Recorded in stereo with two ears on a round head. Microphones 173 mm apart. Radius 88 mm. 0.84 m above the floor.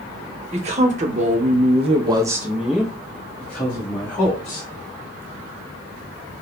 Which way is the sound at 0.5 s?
35° right (ahead or behind).